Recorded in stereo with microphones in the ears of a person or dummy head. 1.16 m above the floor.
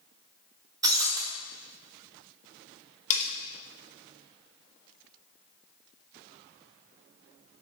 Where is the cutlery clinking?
50° left (ahead or behind), 1.0 m.